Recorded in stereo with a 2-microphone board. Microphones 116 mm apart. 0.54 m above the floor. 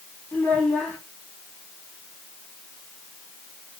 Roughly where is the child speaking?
Centre.